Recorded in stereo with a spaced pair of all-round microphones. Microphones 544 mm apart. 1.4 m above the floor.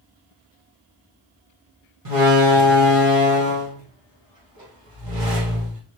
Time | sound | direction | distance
2.0 | a door slam | 70° right (ahead or behind) | 1.6 m